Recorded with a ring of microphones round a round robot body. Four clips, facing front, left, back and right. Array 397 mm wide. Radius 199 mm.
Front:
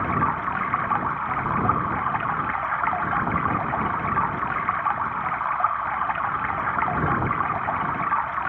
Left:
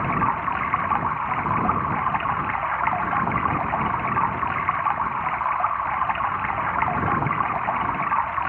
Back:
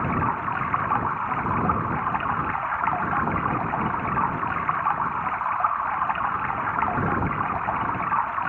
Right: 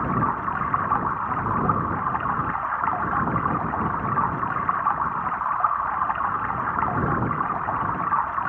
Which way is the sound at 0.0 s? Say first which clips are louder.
Left 1 dB, front 1 dB; 65° left.